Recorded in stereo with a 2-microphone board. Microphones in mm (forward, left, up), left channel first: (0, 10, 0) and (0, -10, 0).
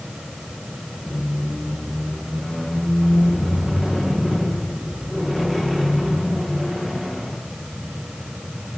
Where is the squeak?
15° left (ahead or behind), 4.5 m.